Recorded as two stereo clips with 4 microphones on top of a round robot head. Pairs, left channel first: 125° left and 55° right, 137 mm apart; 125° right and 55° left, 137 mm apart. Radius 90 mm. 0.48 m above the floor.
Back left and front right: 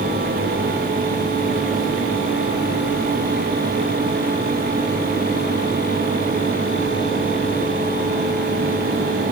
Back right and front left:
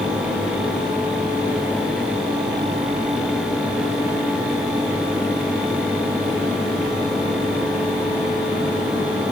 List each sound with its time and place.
Only background noise.